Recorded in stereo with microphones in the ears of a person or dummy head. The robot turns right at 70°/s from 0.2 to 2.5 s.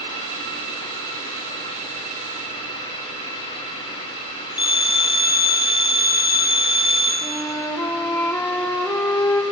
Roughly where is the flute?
Centre.